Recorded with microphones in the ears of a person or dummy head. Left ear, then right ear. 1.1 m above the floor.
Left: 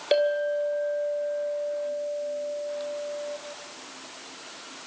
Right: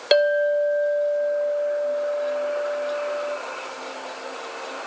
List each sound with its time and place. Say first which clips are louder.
0.1 s a clink: right 5 dB; 45° right (ahead or behind), 2 m